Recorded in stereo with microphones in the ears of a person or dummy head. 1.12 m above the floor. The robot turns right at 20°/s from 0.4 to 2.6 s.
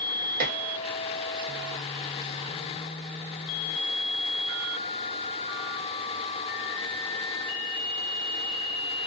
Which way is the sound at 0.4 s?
50° right (ahead or behind).